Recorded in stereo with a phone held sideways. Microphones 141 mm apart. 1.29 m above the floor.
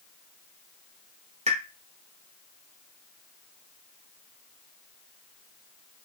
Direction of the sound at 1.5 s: 50° right (ahead or behind).